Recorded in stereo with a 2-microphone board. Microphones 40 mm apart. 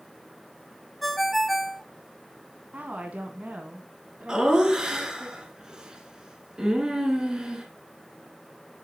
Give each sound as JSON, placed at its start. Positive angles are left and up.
{"t": 1.0, "sound": "a ringtone", "side_deg": 0, "distance_m": 0.5}
{"t": 2.7, "sound": "a woman speaking", "side_deg": -40, "distance_m": 1.3}
{"t": 4.3, "sound": "laughter", "side_deg": -20, "distance_m": 2.0}